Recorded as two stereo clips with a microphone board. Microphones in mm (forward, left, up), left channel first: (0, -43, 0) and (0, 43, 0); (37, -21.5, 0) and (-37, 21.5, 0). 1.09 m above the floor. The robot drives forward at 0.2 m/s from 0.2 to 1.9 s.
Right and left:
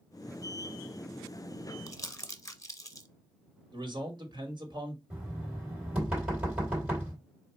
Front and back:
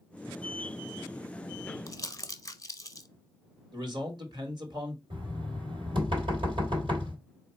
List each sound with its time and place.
1.9 s crumpling: 60° right, 0.7 m
3.7 s a man speaking: 120° left, 1.7 m
5.1 s knocking: 165° left, 3.5 m